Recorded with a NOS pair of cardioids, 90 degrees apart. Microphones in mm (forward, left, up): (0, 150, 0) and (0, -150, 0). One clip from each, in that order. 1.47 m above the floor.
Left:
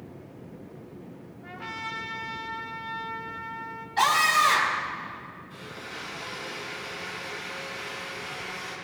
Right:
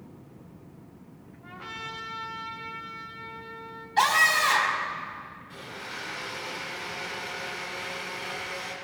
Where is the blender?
65° right, 5.5 m.